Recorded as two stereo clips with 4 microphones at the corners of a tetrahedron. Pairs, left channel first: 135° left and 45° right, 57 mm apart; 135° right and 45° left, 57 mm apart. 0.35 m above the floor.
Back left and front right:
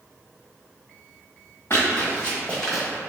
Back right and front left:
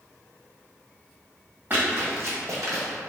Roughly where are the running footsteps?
Left.